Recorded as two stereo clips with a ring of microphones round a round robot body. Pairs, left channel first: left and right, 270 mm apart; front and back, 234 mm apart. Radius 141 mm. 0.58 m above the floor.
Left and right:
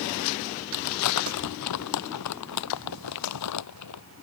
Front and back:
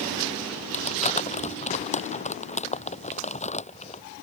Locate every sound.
0.7 s crumpling: 60° left